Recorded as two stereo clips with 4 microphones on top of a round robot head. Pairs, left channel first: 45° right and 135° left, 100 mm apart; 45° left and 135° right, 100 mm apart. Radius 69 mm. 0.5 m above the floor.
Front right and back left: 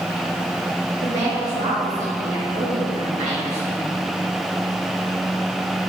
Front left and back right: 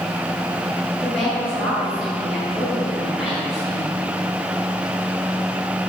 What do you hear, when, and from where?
1.0 s a woman speaking: 140° left, 2.5 m